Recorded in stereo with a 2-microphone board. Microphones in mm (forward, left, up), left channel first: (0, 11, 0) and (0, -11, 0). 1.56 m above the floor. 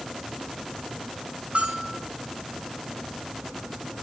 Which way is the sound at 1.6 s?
75° right (ahead or behind).